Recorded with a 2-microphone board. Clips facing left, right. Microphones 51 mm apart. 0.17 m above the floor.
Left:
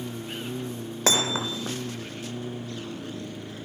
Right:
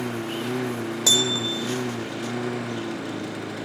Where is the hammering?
40° left (ahead or behind).